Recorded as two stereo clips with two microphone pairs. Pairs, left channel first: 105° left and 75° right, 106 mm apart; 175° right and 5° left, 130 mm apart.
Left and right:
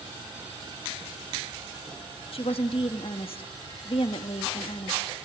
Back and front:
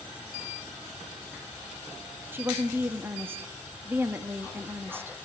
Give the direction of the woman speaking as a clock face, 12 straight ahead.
9 o'clock.